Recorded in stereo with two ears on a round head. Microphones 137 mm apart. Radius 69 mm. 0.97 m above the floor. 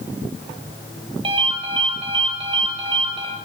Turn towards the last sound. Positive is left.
turn(degrees=-35)  # may be behind; listen again after turning